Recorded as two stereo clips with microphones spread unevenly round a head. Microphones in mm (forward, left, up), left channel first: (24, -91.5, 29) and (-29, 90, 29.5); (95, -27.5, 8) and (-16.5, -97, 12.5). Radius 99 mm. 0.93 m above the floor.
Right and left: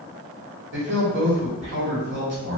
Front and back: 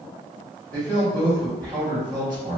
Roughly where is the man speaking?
Left.